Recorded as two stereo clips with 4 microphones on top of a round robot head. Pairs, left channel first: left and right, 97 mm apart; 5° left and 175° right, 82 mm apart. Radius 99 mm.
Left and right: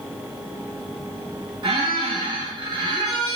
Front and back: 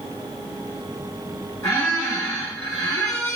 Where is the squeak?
50° right, 0.9 m.